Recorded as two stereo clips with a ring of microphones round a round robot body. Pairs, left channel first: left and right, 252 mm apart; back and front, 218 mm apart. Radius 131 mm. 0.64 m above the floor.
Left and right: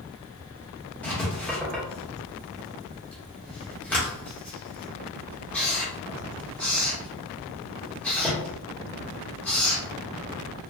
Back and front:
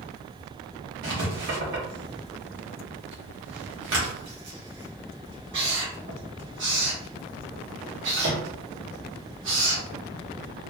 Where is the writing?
5° left, 1.2 m.